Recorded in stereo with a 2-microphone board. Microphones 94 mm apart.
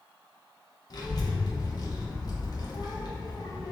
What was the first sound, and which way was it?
A child speaking, 45° left (ahead or behind).